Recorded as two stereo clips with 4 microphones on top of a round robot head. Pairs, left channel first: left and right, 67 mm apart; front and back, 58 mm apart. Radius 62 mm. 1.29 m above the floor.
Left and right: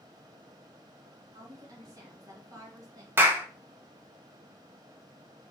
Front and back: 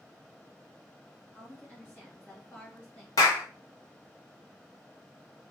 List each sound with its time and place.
1.3 s a woman speaking: 55° right, 1.8 m
3.2 s a clap: 30° right, 0.7 m